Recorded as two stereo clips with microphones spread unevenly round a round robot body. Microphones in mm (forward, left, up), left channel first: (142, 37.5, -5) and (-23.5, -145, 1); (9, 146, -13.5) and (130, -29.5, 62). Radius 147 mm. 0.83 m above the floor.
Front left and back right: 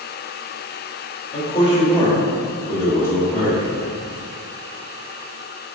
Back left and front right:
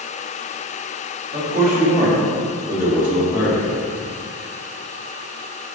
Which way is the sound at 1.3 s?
15° right.